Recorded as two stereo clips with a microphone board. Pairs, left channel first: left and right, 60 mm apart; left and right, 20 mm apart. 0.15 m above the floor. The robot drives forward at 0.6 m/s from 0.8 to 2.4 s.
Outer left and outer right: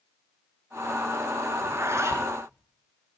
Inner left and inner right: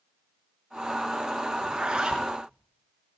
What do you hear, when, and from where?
1.6 s a zipper: 50° right (ahead or behind), 1.5 m